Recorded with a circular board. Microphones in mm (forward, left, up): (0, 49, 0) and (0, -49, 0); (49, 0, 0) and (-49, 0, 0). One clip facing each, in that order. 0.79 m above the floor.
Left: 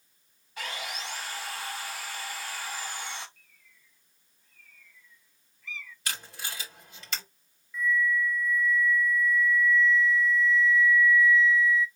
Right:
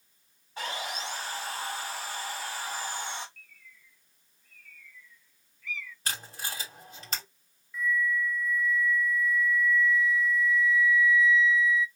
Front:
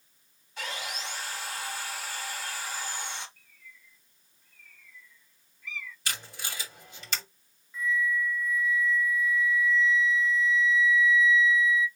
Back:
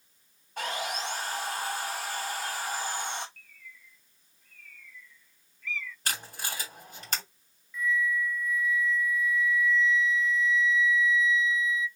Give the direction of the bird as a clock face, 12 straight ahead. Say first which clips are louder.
Right 7 dB, back 3 dB; 10 o'clock.